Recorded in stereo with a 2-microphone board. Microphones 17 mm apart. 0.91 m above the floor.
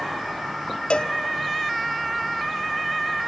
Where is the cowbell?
75° left (ahead or behind), 0.8 m.